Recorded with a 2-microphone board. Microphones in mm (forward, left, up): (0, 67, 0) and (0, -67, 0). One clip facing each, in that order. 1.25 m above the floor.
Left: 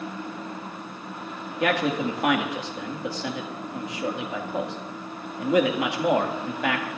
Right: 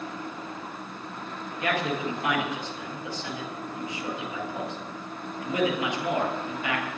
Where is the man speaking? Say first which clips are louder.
Left 4 dB; 85° left, 2 m.